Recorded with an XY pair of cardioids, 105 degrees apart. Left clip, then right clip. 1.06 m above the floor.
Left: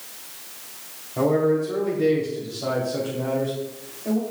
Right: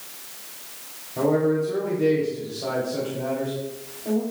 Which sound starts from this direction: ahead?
A man speaking, at 1.2 s.